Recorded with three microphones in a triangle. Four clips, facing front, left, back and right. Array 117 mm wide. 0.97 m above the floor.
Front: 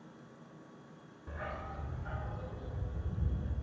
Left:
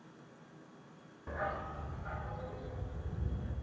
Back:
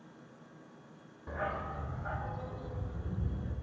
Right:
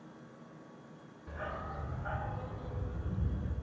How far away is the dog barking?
About 0.8 m.